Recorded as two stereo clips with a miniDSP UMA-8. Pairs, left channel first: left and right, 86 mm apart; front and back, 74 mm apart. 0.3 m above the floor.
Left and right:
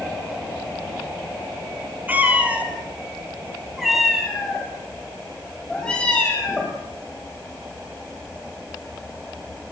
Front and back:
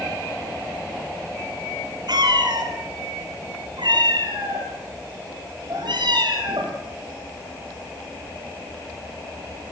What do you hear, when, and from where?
2.1 s a cat meowing: 160° right, 4 m; by 6.8 s 165° left, 5.5 m